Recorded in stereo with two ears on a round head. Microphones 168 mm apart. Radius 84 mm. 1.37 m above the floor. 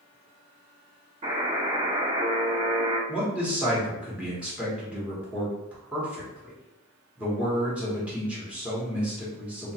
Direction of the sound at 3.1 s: 5° right (ahead or behind).